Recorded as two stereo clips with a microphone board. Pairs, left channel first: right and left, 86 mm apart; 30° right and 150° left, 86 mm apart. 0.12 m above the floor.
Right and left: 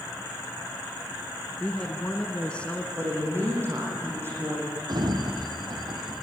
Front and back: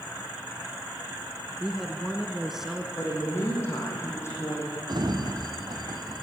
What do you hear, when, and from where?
1.6 s a woman speaking: 135° right, 1.1 m
3.0 s a woman speaking: 30° left, 6 m
4.9 s a sliding door: 120° left, 1.8 m